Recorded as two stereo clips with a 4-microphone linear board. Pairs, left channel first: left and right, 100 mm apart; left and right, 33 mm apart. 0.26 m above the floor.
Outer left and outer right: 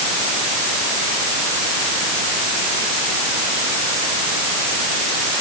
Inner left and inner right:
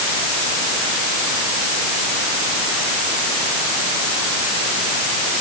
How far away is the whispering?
No whispering in this recording.